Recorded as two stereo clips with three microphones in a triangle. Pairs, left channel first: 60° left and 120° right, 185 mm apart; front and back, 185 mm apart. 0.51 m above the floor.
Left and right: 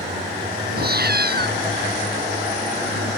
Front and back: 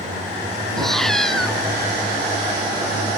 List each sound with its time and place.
0.8 s a cat meowing: 90° right